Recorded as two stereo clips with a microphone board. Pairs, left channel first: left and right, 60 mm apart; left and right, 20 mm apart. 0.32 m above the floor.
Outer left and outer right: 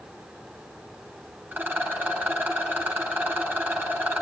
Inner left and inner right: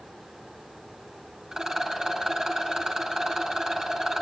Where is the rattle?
30° right (ahead or behind), 4 m.